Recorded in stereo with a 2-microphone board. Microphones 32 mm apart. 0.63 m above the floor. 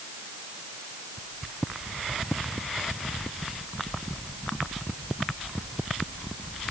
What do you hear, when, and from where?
Only background noise.